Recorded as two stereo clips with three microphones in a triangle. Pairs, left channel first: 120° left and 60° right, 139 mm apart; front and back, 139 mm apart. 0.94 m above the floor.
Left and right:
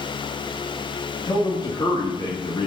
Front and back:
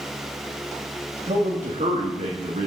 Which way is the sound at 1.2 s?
170° left.